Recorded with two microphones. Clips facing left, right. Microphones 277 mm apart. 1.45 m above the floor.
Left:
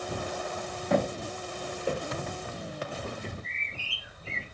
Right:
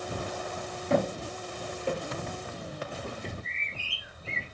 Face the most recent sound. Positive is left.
turn(degrees=-50)  # may be behind; listen again after turning